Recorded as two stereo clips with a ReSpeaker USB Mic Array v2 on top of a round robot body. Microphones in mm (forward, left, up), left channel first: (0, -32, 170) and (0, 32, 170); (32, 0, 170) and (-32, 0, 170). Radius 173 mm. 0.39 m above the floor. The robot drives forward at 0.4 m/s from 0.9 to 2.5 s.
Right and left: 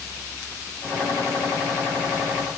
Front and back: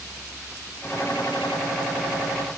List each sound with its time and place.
Only background noise.